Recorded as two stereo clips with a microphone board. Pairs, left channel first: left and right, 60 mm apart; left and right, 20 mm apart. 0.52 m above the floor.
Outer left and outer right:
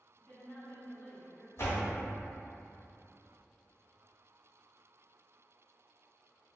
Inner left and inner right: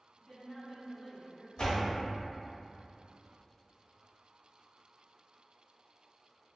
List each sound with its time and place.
0.2 s a woman speaking: 30° left (ahead or behind), 0.8 m
1.6 s a door slam: 50° left (ahead or behind), 1.1 m